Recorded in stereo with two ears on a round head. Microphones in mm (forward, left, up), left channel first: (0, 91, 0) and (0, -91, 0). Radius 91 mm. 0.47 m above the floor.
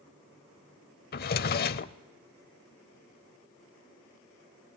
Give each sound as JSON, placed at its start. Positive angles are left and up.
{"t": 1.1, "sound": "a drawer", "side_deg": 50, "distance_m": 0.7}